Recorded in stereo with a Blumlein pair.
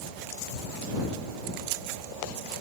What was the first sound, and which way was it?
Only background noise.